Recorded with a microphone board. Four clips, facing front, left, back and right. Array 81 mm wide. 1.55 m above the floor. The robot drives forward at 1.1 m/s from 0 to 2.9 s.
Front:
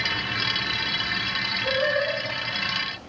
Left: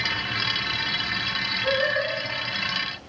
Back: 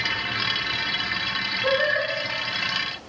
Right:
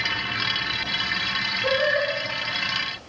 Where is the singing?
145° right, 2.5 m; by 2.1 s 150° right, 3 m.